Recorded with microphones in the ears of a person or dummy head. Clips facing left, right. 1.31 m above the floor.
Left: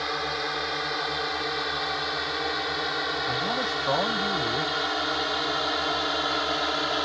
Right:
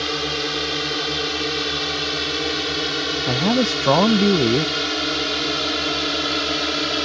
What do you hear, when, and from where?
0.0 s a drone: 45° right (ahead or behind); by 7.0 s 35° right (ahead or behind)
3.3 s a man speaking: 80° right